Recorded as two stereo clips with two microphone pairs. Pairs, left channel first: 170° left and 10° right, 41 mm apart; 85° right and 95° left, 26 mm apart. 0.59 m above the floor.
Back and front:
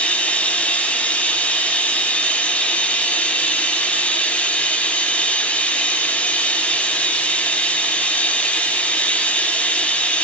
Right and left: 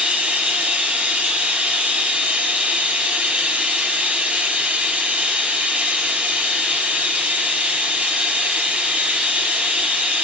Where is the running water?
115° left, 4 m.